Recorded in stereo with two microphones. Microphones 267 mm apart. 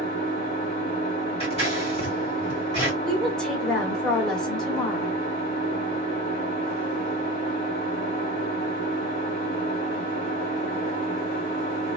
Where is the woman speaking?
5° left (ahead or behind), 1.3 m.